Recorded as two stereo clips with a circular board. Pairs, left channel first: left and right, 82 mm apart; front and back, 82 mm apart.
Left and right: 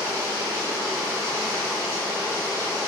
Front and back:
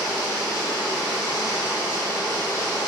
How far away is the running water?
About 1.4 m.